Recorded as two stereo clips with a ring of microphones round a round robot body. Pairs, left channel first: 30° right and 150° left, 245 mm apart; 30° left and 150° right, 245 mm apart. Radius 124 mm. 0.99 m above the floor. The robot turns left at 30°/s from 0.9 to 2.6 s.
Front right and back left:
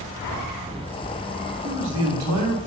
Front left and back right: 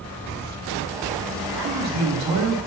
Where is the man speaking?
165° right, 1.3 m; by 2.7 s 165° left, 1.3 m.